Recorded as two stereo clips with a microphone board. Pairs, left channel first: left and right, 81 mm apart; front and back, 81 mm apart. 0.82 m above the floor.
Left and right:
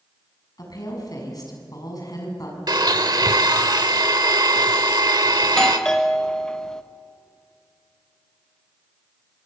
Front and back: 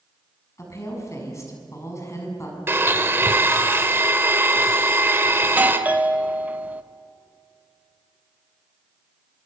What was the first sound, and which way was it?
A woman speaking, 55° left.